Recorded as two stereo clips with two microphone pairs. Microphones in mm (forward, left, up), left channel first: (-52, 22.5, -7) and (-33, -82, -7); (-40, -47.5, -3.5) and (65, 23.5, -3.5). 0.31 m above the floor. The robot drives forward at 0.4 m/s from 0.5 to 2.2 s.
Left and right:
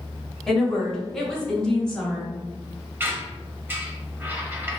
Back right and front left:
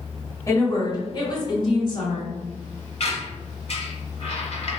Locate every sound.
0.5 s a woman speaking: 175° right, 0.9 m; by 2.3 s straight behind, 1.4 m
3.0 s a squeak: 145° right, 0.6 m